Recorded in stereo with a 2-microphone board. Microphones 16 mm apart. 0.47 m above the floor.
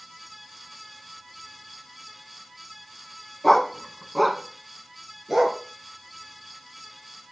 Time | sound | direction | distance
3.4 | a dog barking | 20° left (ahead or behind) | 1.7 m